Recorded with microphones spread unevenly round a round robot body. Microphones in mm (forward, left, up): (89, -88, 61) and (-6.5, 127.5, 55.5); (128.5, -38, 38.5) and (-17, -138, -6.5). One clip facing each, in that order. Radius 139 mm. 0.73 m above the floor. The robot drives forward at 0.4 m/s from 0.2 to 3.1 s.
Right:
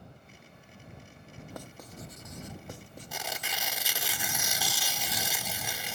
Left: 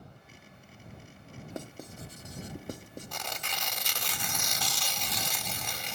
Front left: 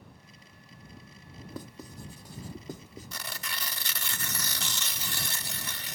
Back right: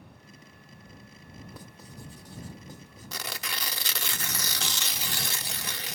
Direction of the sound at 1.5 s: 50° left.